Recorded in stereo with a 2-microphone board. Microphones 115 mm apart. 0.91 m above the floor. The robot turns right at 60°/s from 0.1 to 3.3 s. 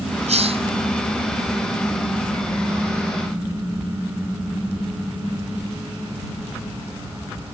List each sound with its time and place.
0.3 s a hiss: 75° right (ahead or behind); by 0.7 s 55° right (ahead or behind)